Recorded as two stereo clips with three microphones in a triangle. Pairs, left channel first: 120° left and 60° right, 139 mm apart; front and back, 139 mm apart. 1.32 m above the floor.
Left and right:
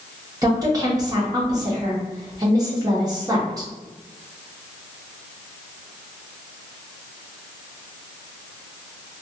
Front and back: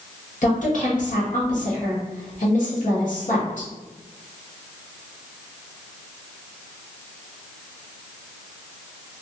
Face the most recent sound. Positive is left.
turn(degrees=0)